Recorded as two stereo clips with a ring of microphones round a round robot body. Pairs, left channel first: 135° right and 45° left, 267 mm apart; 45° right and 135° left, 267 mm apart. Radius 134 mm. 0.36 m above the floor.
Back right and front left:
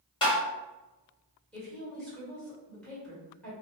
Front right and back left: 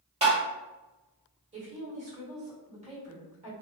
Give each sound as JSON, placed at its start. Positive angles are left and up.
{"t": 0.2, "sound": "tapping", "azimuth_deg": 175, "distance_m": 1.1}
{"t": 1.5, "sound": "a woman speaking", "azimuth_deg": 145, "distance_m": 1.3}